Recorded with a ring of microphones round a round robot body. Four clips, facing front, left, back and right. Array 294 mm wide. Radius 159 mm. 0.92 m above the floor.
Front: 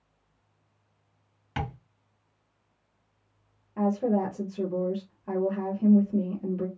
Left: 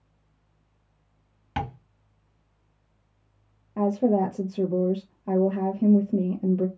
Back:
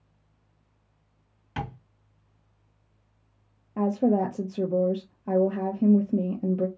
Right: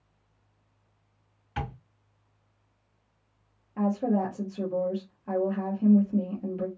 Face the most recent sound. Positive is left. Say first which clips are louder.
# left 4 dB, back 2 dB
turn(degrees=135)